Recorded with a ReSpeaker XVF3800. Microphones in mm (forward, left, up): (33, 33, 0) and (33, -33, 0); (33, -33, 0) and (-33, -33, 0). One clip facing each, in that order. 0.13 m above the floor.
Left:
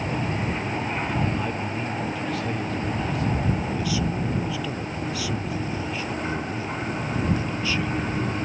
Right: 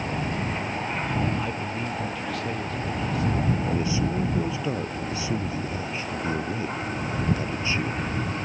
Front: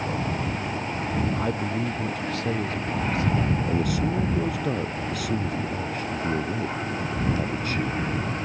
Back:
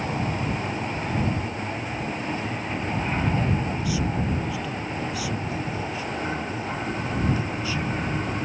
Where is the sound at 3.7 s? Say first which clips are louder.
Right 1 dB, front 2 dB; 30° right.